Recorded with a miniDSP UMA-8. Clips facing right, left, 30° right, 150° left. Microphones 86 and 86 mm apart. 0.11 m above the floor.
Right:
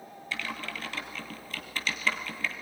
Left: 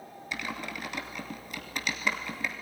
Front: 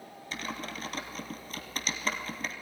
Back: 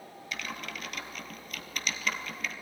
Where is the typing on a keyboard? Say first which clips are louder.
Even, front 2 dB; 20° left, 1.6 m.